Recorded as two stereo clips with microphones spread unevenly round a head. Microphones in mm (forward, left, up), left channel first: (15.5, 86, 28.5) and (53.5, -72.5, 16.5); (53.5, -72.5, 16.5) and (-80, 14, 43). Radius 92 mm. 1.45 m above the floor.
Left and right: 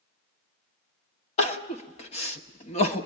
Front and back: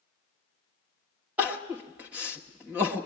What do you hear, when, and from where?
1.4 s crying: 75° left, 1.2 m